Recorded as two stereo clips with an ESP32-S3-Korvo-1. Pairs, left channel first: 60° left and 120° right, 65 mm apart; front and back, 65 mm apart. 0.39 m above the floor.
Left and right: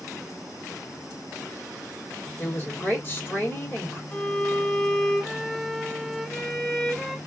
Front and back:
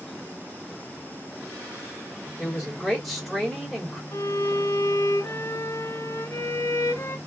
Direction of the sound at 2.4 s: 90° left.